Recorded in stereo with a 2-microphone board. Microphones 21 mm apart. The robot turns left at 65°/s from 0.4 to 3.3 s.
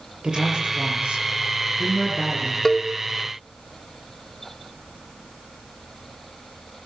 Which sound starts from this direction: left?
A cowbell, at 2.6 s.